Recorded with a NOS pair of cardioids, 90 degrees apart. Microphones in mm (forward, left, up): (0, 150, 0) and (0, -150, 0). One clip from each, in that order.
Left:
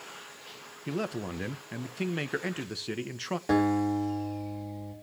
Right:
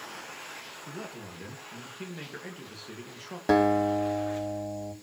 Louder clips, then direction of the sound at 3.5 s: Right 4 dB; 40° right.